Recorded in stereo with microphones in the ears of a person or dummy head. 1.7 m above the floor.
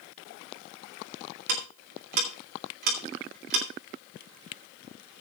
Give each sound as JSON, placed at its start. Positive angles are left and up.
{"t": 1.5, "sound": "ticking", "side_deg": -60, "distance_m": 2.5}